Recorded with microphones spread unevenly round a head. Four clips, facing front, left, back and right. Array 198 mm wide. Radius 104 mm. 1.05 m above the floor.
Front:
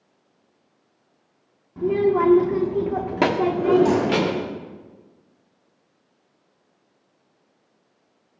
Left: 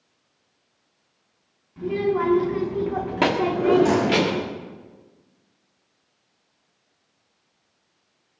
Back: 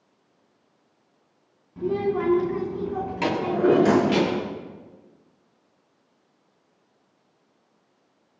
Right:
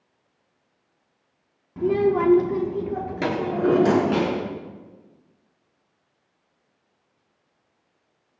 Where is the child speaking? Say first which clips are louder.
Right 3 dB, front 5 dB; 45° right, 2 m; by 4.3 s 45° left, 3 m.